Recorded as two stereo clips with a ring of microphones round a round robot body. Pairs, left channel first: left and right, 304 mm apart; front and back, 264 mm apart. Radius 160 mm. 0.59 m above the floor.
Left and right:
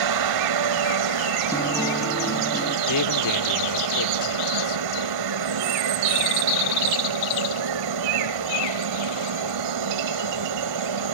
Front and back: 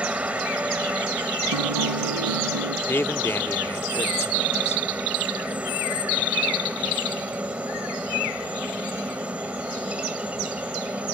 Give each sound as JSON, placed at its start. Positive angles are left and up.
{"t": 0.0, "sound": "a helicopter", "azimuth_deg": -95}
{"t": 1.5, "sound": "a guitar", "azimuth_deg": 170}
{"t": 2.9, "sound": "a man speaking", "azimuth_deg": 80}